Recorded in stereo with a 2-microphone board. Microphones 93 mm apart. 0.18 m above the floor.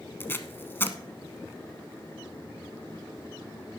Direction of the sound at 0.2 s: 25° left (ahead or behind).